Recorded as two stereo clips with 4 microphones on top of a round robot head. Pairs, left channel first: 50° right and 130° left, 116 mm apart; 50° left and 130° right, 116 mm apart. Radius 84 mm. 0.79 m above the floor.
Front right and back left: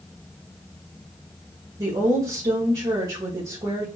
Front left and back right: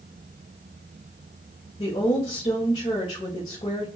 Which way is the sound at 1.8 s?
80° left.